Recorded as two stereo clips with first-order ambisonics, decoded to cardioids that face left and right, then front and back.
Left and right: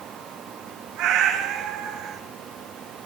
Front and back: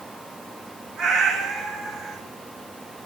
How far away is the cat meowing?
About 4.5 m.